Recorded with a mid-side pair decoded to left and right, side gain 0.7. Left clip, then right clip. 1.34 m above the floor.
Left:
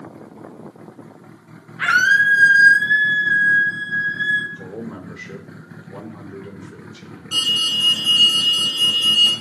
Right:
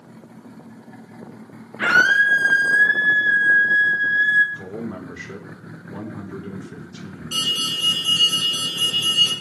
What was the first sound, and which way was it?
A scream, straight ahead.